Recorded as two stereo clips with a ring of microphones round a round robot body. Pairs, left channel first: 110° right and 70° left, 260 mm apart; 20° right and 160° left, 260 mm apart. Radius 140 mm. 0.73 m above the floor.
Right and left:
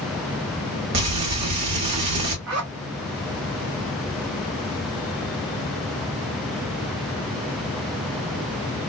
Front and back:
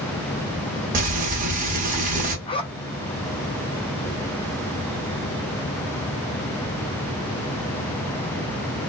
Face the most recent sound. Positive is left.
turn(degrees=50)